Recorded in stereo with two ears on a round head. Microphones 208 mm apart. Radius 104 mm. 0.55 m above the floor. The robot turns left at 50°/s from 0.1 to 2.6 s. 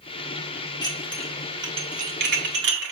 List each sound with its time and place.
0.8 s dishes clattering: 20° left (ahead or behind), 1.4 m; by 2.9 s 60° right (ahead or behind), 1.4 m